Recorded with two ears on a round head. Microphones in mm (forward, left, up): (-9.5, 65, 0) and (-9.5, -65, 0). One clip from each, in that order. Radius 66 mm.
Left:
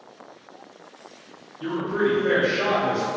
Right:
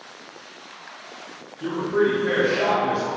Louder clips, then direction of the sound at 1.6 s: Right 2 dB; 45° left (ahead or behind).